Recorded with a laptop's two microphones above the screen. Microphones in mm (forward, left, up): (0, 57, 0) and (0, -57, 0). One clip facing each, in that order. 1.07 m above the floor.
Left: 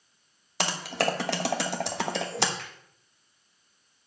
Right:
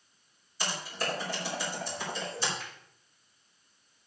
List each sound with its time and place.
0.6 s typing on a keyboard: 75° left (ahead or behind), 1.1 m
2.6 s a finger snap: 85° left, 4 m